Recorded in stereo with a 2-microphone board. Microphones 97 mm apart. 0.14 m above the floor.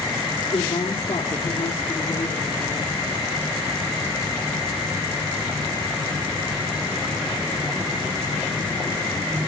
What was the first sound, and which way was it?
A woman speaking, 60° left (ahead or behind).